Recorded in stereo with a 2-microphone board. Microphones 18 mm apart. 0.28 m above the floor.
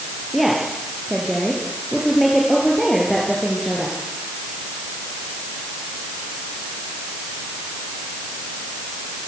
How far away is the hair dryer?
I don't hear a hair dryer.